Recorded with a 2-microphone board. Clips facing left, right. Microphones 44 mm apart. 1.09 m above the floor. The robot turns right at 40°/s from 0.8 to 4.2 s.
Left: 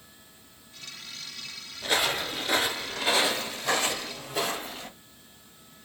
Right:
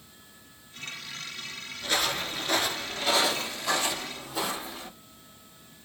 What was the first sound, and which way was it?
Footsteps, 20° left (ahead or behind).